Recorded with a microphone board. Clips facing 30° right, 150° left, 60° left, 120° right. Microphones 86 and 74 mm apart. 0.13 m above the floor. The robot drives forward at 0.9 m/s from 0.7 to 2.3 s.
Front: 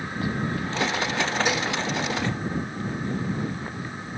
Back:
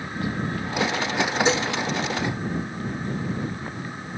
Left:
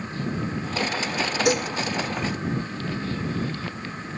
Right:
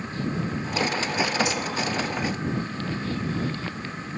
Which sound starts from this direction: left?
Dishes clattering, at 1.4 s.